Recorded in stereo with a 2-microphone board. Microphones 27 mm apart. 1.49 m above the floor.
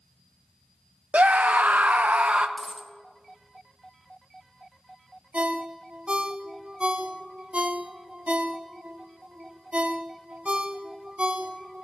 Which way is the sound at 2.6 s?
5° right (ahead or behind).